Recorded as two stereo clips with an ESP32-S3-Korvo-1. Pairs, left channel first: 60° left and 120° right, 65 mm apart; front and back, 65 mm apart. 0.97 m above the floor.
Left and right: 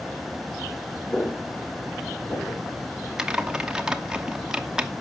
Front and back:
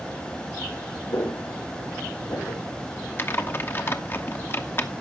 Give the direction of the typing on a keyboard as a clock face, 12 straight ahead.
1 o'clock.